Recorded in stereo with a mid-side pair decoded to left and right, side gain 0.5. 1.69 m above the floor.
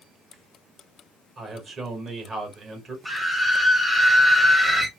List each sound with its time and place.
1.4 s a man speaking: 40° right, 2 m
3.0 s a scream: 15° right, 1.1 m